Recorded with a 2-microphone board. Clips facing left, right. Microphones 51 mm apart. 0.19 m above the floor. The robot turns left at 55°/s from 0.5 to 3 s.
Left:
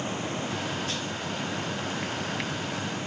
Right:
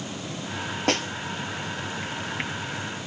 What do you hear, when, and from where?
0.9 s a snare drum: 85° right, 0.8 m; by 1.1 s 80° right, 0.8 m